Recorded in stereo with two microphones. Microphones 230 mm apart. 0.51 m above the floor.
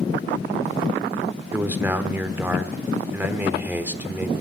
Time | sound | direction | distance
1.5 | a man speaking | 10° right (ahead or behind) | 1.2 m